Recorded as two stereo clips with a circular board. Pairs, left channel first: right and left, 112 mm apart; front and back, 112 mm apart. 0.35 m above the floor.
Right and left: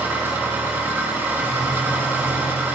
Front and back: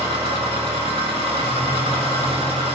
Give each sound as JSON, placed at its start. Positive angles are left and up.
{"t": 0.0, "sound": "an engine running", "azimuth_deg": 160, "distance_m": 3.5}